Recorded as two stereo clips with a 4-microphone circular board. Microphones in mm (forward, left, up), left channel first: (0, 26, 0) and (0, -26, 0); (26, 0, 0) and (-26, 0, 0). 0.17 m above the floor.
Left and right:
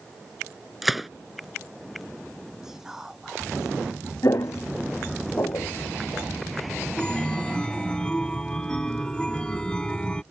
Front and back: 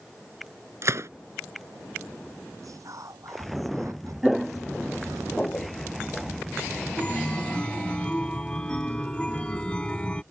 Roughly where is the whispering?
Behind.